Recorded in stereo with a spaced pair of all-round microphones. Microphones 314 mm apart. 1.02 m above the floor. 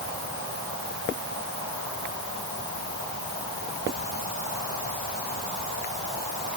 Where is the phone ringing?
No phone ringing in this recording.